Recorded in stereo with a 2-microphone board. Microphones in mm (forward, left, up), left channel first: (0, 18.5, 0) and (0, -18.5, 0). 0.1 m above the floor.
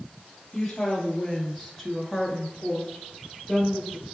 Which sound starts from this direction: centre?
A woman speaking, at 0.5 s.